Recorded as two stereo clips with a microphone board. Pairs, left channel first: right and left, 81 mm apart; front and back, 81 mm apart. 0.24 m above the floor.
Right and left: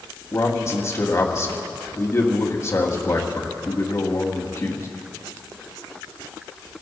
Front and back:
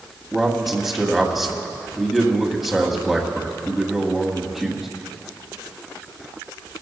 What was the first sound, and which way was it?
A man speaking, 95° right.